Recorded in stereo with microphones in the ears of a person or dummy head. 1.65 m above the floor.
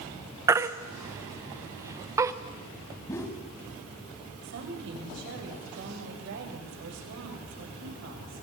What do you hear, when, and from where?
0.5 s a baby crying: 15° right (ahead or behind), 1.0 m
3.1 s a whoosh: 15° left (ahead or behind), 2.0 m
4.4 s a woman speaking: 65° right (ahead or behind), 6.5 m